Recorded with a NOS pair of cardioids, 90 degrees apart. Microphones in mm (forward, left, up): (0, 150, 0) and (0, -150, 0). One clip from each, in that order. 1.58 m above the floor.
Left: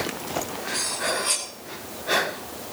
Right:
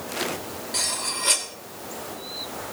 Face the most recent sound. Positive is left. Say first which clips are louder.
# left 1 dB
turn(degrees=-35)